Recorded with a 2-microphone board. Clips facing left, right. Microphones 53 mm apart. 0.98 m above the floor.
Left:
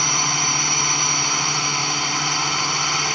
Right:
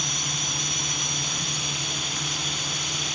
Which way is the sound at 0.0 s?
65° left (ahead or behind).